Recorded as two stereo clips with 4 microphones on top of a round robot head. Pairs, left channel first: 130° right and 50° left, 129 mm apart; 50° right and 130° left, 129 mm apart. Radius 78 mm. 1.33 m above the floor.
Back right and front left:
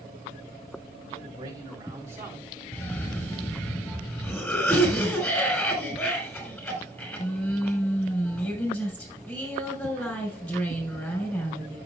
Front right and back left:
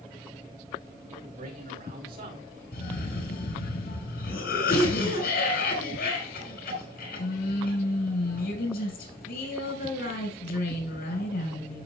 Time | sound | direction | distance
1.1 | a man speaking | 110° left | 3.5 m
2.7 | a cough | 55° right | 6 m